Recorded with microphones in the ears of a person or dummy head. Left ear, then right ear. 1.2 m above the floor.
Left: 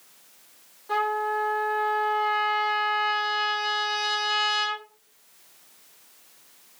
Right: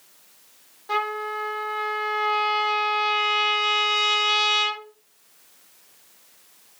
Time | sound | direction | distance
0.9 | a trumpet | 90° right | 2.5 m